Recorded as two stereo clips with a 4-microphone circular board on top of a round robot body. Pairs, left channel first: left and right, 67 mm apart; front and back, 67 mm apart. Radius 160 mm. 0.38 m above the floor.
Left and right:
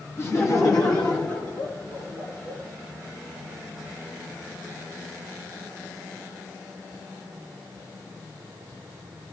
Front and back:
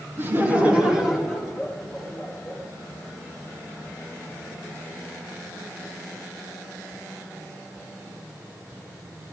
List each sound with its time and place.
0.2 s laughter: 135° left, 1.8 m; by 2.6 s 70° left, 3.5 m